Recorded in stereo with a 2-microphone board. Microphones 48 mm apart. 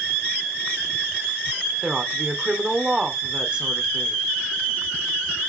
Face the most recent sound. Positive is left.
turn(degrees=-20)  # may be behind; listen again after turning